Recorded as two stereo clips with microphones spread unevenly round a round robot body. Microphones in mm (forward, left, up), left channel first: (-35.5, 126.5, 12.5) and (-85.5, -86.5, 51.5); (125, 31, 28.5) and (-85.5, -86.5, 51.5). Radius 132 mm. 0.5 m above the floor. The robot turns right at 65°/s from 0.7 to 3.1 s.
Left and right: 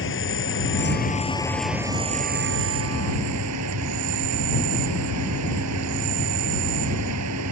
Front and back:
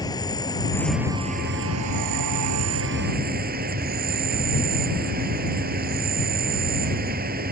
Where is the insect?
105° left; by 7.5 s 100° right.